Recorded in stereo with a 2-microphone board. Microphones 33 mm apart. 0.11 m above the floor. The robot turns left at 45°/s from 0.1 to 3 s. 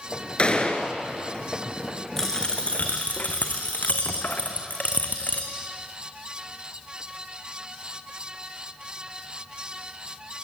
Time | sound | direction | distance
0.4 | a gunshot | 30° left (ahead or behind) | 2 m
2.2 | a dropped coin | 170° left | 2 m